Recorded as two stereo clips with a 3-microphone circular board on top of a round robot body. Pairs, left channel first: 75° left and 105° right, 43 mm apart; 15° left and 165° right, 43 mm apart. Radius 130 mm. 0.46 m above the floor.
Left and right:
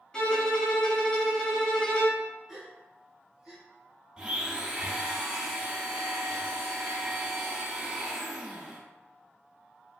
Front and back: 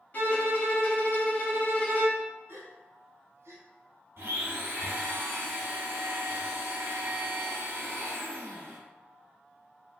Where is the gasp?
165° left, 0.9 m.